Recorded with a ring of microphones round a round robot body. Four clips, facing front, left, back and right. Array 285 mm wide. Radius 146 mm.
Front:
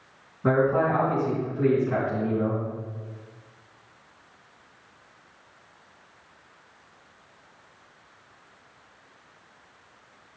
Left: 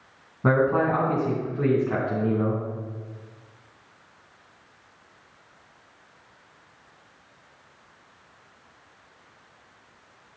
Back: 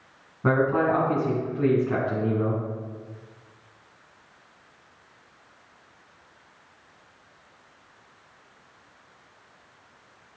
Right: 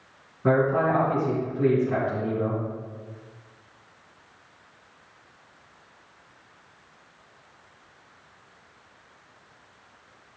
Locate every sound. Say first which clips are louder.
0.4 s a man speaking: even, even; 110° left, 3.5 m